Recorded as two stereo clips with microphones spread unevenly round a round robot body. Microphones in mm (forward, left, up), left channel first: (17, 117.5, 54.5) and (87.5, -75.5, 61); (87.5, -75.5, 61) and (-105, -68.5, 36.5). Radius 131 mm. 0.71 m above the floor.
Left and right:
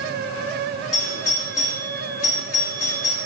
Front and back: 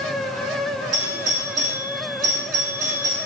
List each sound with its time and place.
0.9 s a doorbell: 150° left, 2 m